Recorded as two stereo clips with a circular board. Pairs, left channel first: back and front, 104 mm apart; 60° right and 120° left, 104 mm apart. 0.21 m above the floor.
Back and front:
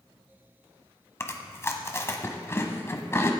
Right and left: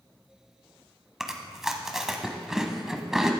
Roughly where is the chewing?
Behind.